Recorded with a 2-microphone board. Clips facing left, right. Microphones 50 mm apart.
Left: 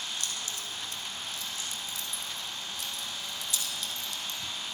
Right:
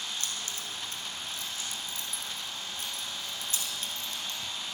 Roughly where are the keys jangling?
Right.